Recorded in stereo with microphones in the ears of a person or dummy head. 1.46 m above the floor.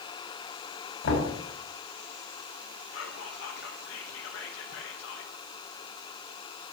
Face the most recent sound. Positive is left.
turn(degrees=75)  # may be behind; listen again after turning